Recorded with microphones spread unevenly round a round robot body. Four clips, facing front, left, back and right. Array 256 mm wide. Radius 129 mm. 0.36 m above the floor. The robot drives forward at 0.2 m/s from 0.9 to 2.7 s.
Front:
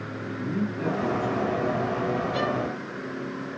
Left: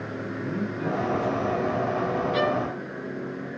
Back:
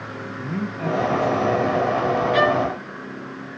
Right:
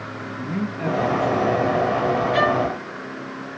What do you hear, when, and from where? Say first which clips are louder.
0.4 s a man speaking: right 4 dB, back 1 dB; 120° right, 3 m; by 2.2 s 125° right, 3 m
2.3 s a violin: right 5 dB, back 8 dB; 140° right, 2.5 m